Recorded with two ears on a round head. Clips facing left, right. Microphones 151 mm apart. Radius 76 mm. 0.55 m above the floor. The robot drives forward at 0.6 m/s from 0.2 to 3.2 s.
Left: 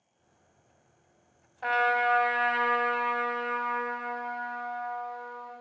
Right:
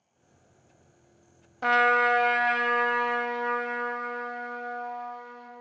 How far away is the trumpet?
About 0.5 m.